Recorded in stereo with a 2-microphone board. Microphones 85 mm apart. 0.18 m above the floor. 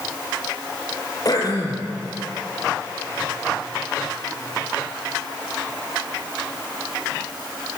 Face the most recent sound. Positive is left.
turn(degrees=45)  # may be behind; listen again after turning